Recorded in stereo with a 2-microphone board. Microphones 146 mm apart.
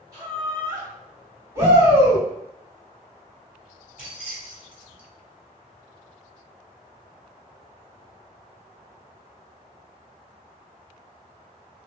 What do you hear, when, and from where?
0.1 s laughter: 25° right (ahead or behind), 1.4 m
1.6 s a shout: 20° right (ahead or behind), 1.5 m
4.0 s keys jangling: 5° right (ahead or behind), 1.5 m